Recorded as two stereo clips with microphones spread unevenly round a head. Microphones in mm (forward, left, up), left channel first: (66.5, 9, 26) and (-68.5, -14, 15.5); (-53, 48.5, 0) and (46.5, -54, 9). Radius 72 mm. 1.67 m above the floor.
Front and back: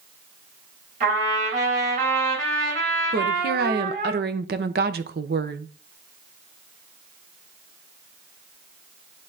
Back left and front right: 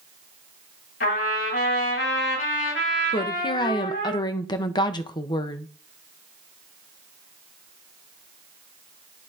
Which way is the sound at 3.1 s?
165° right.